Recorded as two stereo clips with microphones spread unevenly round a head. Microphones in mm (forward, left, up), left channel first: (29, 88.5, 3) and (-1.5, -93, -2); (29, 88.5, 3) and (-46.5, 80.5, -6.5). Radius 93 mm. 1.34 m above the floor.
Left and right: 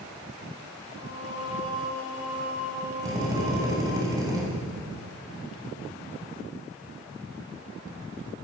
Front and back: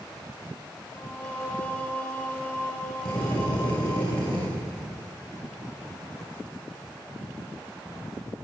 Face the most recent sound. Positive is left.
turn(degrees=-25)